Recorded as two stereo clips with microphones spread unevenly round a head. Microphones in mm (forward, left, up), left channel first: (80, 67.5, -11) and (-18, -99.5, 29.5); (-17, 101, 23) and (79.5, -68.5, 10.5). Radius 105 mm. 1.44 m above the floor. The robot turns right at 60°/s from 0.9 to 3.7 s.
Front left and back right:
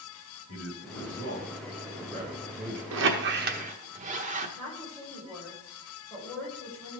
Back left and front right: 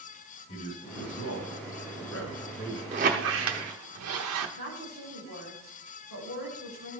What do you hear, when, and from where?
0.5 s a man speaking: 80° left, 2.0 m; by 2.8 s 165° right, 2.0 m
2.9 s a squeak: 125° right, 1.0 m; by 4.5 s 75° right, 1.0 m
4.6 s a woman speaking: 145° left, 5.5 m